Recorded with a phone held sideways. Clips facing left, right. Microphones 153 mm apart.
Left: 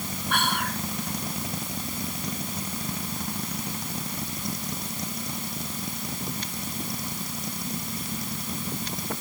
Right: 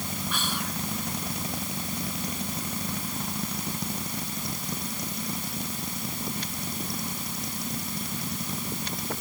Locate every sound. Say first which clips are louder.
0.3 s whispering: left 8 dB; 60° left (ahead or behind)